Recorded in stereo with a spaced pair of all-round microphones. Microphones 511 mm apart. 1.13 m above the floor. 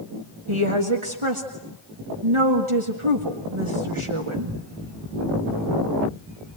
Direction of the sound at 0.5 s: 70° right (ahead or behind).